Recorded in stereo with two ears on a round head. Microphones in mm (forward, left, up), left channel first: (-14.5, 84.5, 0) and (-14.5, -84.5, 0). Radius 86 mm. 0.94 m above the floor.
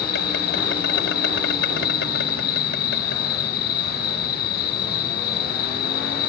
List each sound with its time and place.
0.0 s an insect: 55° left (ahead or behind)